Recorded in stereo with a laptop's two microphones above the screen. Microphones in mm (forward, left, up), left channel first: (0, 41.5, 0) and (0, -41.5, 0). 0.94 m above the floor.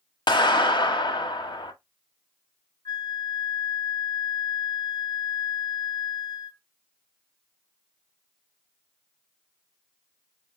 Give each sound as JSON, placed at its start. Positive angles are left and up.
{"t": 0.3, "sound": "a clap", "side_deg": 70, "distance_m": 1.2}
{"t": 2.9, "sound": "a flute", "side_deg": 50, "distance_m": 0.6}